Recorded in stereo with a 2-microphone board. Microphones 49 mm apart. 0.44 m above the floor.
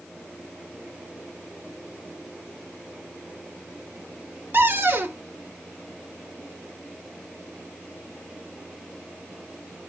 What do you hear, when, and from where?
4.5 s a cupboard door: 50° right (ahead or behind), 0.7 m